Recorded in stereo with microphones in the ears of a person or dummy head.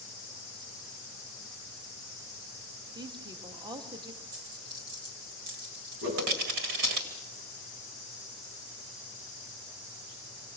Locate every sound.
3.0 s a woman speaking: 25° right (ahead or behind), 3 m
4.3 s a dropped coin: 45° right (ahead or behind), 1.7 m
6.0 s a whoosh: 60° right (ahead or behind), 8 m